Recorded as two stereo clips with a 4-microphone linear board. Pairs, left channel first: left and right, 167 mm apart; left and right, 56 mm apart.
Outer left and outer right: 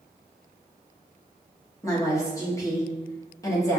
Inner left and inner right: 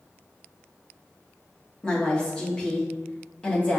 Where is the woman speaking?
20° left (ahead or behind), 1.2 m.